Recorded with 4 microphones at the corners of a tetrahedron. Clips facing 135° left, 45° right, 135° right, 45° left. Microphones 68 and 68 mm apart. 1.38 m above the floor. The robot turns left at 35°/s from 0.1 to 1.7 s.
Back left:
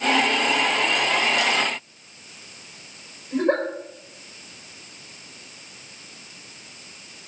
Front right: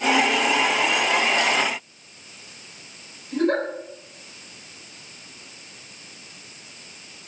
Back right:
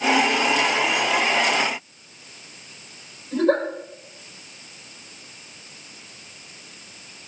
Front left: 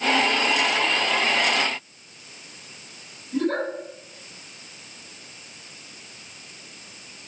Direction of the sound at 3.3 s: 160° right.